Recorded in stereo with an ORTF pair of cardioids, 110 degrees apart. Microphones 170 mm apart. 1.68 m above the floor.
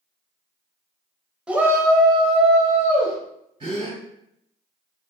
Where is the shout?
5° right, 0.9 m; by 3.2 s 60° right, 1.2 m.